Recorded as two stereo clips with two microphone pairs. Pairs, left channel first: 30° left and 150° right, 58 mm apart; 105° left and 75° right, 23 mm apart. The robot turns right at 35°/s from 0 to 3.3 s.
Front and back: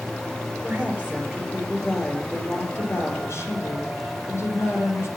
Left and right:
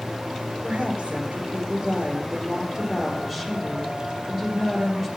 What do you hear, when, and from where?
0.6 s a woman speaking: 100° right, 3.5 m; by 5.1 s 5° right, 3.5 m